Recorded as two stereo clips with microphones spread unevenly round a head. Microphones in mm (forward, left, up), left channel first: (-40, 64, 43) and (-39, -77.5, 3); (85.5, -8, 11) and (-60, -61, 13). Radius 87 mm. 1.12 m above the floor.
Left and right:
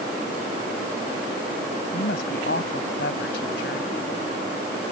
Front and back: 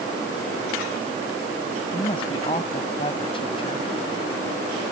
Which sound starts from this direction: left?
A woman speaking, at 1.9 s.